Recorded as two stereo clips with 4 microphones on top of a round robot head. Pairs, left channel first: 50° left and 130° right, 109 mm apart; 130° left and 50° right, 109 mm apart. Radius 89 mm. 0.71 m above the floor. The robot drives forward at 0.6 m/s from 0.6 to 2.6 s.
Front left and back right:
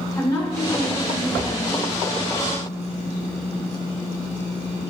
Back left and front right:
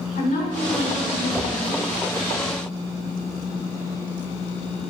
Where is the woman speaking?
115° left, 2.0 m; by 1.9 s 135° left, 2.5 m.